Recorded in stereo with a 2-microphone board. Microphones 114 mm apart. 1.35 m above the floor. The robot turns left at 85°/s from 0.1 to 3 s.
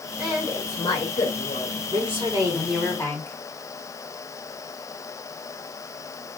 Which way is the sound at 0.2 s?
170° right.